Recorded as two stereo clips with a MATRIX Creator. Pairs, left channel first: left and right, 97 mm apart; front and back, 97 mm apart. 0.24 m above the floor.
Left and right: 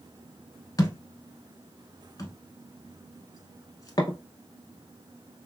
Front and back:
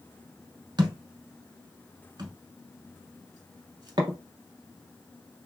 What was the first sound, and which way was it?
A thud, 140° left.